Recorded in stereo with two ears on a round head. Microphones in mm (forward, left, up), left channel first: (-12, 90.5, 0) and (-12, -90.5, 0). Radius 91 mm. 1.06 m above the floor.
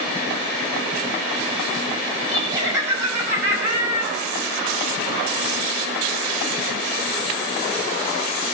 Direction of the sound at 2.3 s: 15° right (ahead or behind).